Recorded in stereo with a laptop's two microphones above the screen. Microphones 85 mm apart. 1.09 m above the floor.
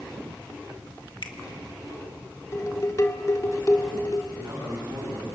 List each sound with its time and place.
1.2 s a finger snap: 70° left (ahead or behind), 1.7 m
2.5 s dishes clattering: 40° left (ahead or behind), 1.8 m
4.3 s a man speaking: 60° right (ahead or behind), 9 m